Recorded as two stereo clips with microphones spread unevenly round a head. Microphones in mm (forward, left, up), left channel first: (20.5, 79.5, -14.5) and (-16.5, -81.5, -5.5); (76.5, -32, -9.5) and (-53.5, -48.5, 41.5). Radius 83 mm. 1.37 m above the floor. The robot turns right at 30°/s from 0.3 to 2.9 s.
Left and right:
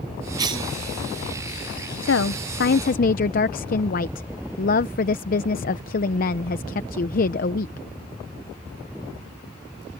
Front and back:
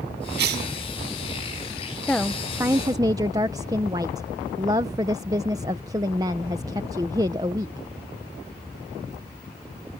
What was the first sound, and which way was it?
A cough, 175° right.